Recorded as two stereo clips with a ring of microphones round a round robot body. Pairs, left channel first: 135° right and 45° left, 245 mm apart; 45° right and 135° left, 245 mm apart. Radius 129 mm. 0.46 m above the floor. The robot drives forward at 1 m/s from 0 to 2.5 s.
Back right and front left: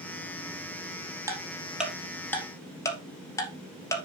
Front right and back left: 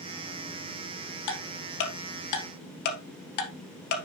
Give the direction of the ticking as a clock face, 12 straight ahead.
1 o'clock.